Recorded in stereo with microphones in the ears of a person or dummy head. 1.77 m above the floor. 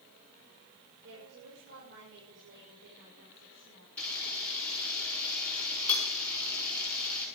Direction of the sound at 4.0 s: 10° left (ahead or behind).